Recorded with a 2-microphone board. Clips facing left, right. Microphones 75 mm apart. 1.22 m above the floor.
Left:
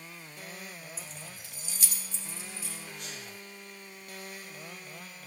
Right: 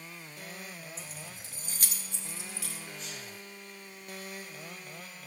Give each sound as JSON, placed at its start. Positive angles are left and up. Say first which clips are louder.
{"t": 1.0, "sound": "keys jangling", "louder": "even", "side_deg": 5, "distance_m": 0.9}
{"t": 3.0, "sound": "a sneeze", "louder": "even", "side_deg": 60, "distance_m": 1.9}